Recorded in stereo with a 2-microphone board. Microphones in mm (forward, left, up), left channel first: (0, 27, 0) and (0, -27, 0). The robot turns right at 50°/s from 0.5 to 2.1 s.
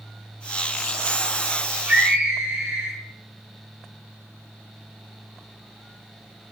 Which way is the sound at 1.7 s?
30° right (ahead or behind).